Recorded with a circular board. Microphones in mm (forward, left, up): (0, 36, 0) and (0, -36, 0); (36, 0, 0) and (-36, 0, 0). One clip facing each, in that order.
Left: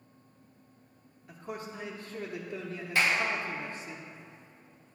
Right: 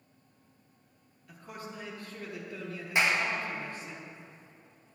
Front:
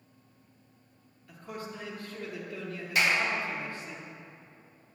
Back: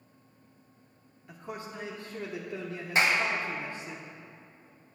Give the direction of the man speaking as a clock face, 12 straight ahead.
8 o'clock.